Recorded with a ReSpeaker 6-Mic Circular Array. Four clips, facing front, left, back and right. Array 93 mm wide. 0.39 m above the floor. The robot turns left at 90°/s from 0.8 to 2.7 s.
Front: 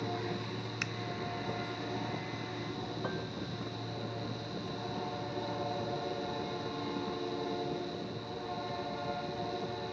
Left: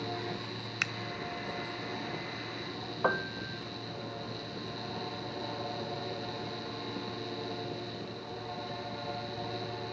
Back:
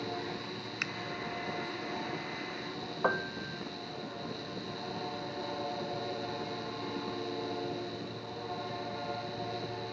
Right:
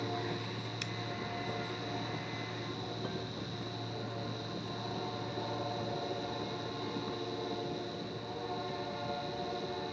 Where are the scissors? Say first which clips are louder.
Left 5 dB, back 1 dB; 100° left; by 0.9 s 90° left.